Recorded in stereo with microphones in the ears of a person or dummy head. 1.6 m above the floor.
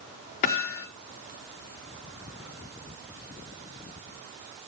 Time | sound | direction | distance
0.4 | hammering | 35° left (ahead or behind) | 1.2 m